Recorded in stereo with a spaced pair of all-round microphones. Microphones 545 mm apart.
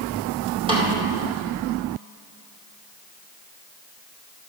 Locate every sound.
0.7 s a snare drum: 10° right (ahead or behind), 2.5 m